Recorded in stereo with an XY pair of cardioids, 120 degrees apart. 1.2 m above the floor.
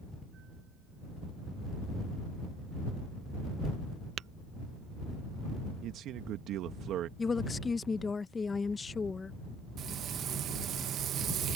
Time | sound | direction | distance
4.2 | tapping | 60° right | ?
5.8 | a man speaking | 70° right | ?
7.2 | a woman speaking | 25° left | ?
9.8 | frying | 55° right | ?